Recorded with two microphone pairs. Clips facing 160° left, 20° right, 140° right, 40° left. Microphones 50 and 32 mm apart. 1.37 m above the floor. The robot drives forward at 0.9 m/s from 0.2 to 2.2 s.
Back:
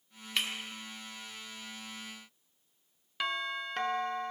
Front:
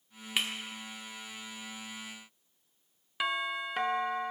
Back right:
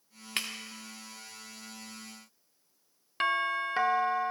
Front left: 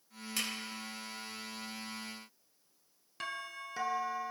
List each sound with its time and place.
0.4 s breaking glass: 100° right, 1.8 m; by 0.5 s 105° right, 1.8 m
3.2 s a doorbell: 100° right, 0.5 m